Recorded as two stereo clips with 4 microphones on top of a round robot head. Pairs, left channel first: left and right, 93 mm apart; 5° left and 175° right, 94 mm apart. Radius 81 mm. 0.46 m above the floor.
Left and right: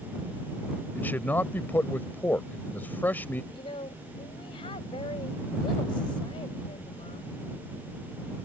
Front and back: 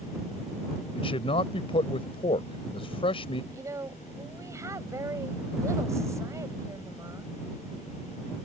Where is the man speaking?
20° left.